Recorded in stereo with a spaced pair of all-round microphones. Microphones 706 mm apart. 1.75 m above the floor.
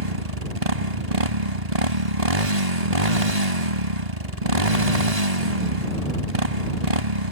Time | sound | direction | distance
0.0 | a motorcycle | 60° right (ahead or behind) | ?